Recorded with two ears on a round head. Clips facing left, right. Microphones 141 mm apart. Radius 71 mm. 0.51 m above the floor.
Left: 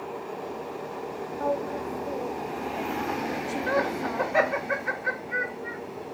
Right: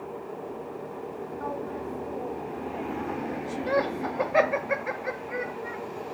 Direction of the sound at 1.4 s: 45° left (ahead or behind).